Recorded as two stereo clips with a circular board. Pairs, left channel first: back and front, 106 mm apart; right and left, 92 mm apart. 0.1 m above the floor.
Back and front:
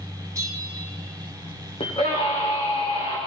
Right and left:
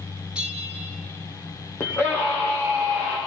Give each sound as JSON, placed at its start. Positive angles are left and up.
{"t": 0.3, "sound": "a bell", "azimuth_deg": 20, "distance_m": 1.5}
{"t": 1.8, "sound": "a scream", "azimuth_deg": -150, "distance_m": 6.0}